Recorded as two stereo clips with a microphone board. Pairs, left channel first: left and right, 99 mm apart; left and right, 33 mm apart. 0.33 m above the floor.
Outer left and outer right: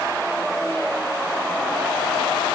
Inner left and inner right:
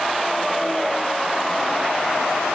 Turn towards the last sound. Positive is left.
No sound to turn to.